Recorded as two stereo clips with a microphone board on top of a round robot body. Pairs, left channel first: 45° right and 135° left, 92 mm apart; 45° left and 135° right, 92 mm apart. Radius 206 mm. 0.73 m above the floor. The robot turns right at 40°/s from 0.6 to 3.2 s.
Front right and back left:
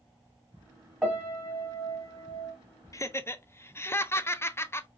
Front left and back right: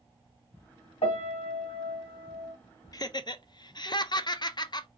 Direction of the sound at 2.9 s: 5° left.